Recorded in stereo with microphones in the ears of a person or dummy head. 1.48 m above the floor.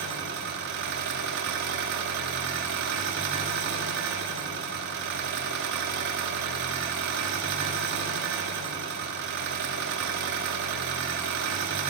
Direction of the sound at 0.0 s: 45° right (ahead or behind).